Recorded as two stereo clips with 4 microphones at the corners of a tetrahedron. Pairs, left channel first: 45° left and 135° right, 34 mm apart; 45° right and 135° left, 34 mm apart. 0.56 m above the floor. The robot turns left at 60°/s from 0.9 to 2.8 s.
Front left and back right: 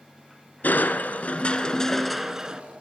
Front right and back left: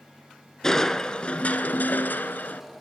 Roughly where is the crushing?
Ahead left.